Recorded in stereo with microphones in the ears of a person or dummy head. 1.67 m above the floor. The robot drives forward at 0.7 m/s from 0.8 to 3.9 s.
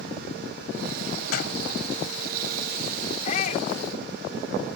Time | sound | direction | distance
1.3 | a door slam | 50° left (ahead or behind) | ?
3.2 | a shout | 40° left (ahead or behind) | ?